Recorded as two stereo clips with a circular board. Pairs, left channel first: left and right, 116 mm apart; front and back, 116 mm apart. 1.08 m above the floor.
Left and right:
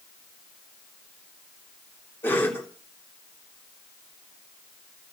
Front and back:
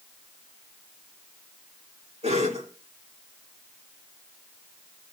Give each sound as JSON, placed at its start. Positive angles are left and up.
{"t": 2.2, "sound": "a cough", "azimuth_deg": 160, "distance_m": 3.5}